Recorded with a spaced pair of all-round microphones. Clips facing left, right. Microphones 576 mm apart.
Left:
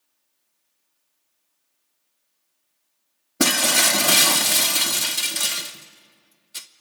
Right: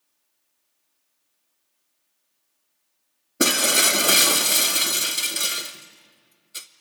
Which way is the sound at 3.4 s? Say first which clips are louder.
Even; 20° left (ahead or behind).